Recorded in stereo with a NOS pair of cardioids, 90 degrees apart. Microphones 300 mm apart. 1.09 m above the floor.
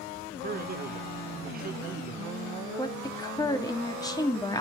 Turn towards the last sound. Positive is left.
turn(degrees=15)